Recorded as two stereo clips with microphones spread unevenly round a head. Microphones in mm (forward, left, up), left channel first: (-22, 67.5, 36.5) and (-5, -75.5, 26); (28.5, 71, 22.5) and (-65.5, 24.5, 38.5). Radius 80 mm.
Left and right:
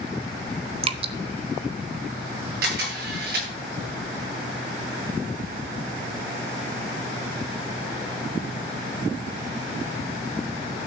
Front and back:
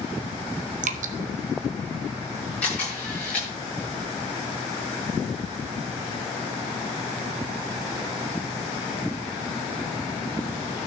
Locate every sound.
0.8 s dripping: 135° right, 0.9 m
2.6 s a camera shutter: 55° right, 8.5 m